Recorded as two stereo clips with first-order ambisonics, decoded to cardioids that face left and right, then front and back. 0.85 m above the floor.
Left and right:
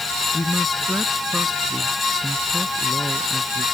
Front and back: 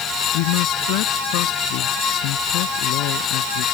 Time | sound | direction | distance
0.3 | a man speaking | 10° left | ?